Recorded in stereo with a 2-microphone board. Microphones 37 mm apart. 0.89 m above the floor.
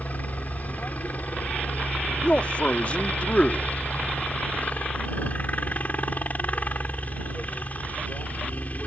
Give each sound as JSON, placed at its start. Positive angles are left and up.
{"t": 0.0, "sound": "a helicopter", "side_deg": 45}
{"t": 2.2, "sound": "a man speaking", "side_deg": 35}